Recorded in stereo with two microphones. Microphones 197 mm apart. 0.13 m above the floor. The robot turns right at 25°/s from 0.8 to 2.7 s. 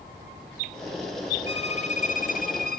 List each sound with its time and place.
1.5 s a violin: 35° left, 1.4 m; by 2.8 s 65° left, 1.4 m